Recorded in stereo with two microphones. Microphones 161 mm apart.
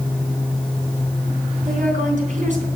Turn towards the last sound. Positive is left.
turn(degrees=-50)  # may be behind; listen again after turning